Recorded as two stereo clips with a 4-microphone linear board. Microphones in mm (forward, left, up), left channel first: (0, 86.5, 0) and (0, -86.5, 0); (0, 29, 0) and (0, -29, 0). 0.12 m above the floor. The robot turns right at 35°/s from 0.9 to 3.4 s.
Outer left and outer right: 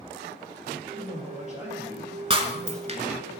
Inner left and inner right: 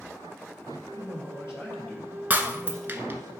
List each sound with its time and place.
0.9 s a man speaking: 115° left, 3 m; by 3.3 s 165° right, 3 m
2.3 s breaking glass: 30° right (ahead or behind), 0.9 m; by 3.2 s 35° right (ahead or behind), 0.9 m